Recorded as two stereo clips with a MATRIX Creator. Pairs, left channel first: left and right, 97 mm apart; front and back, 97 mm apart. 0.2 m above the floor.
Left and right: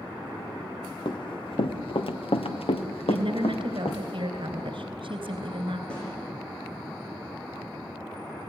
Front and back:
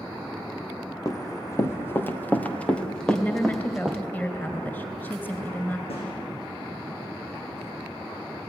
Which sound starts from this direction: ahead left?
Running footsteps, at 1.1 s.